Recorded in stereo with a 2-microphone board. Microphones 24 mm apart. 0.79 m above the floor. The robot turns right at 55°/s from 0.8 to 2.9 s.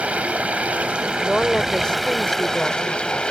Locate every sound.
0.0 s running water: 70° right; by 3.3 s 45° left
1.2 s a woman speaking: 15° left; by 3.2 s 110° left